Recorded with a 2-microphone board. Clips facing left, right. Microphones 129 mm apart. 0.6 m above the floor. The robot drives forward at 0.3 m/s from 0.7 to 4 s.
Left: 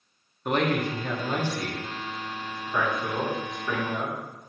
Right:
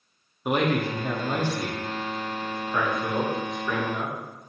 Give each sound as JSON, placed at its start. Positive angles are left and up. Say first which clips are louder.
{"t": 0.5, "sound": "a man speaking", "louder": "right 1 dB", "side_deg": -10, "distance_m": 0.6}